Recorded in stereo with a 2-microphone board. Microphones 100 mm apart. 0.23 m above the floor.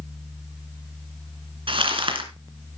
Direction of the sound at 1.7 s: 60° right (ahead or behind).